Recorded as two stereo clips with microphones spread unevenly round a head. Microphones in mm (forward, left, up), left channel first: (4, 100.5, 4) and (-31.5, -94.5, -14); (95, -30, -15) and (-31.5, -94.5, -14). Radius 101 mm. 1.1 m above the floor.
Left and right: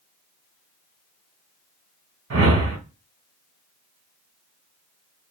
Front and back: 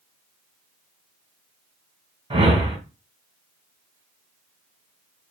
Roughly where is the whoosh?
Right.